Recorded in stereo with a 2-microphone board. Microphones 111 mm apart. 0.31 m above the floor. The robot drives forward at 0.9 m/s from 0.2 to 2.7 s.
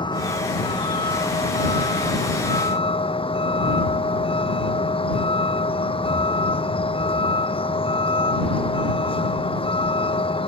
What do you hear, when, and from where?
0.0 s a vehicle: 45° left (ahead or behind); by 10.5 s 55° left (ahead or behind)